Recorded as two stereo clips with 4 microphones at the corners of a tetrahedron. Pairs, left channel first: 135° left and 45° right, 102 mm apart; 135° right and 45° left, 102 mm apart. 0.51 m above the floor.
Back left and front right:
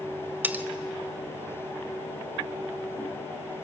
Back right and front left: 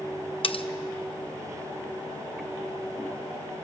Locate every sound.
0.4 s cutlery clinking: 115° right, 0.7 m